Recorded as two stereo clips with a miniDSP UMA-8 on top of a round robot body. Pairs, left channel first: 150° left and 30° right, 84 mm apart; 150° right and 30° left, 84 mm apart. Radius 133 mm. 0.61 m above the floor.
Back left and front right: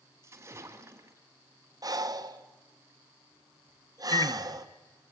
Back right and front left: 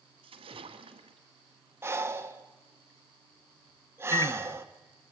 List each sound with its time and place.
0.2 s a splash: 30° left, 1.7 m
1.8 s breathing: 15° right, 1.6 m
4.1 s a microwave: straight behind, 1.1 m